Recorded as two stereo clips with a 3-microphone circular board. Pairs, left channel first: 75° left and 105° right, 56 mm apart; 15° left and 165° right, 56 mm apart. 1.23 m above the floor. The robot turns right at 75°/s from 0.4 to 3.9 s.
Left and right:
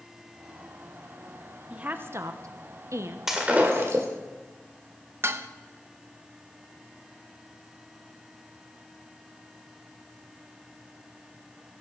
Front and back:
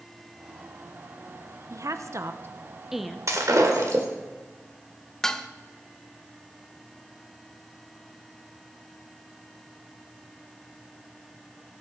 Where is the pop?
No pop in this recording.